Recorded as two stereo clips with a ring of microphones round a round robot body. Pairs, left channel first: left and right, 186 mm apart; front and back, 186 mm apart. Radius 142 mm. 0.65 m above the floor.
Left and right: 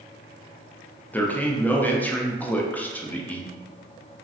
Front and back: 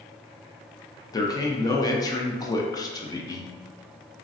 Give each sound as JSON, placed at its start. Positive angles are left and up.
{"t": 1.1, "sound": "a man speaking", "azimuth_deg": 25, "distance_m": 0.5}